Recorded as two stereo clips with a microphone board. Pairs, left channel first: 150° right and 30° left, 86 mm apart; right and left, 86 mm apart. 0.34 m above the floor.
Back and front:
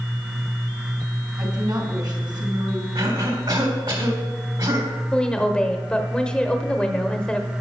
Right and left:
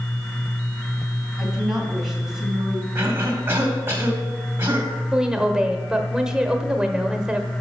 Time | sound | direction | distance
1.4 | a woman speaking | 5° left | 3 m
3.0 | a cough | 35° left | 2.5 m
5.1 | a woman speaking | 155° left | 1.0 m